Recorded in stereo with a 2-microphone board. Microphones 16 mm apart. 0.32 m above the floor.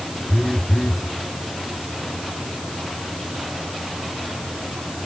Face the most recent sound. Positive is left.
turn(degrees=65)  # may be behind; listen again after turning